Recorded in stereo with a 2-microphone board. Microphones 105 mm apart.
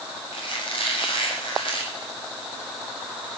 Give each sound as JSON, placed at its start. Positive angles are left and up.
{"t": 0.3, "sound": "a squeak", "side_deg": 55, "distance_m": 6.0}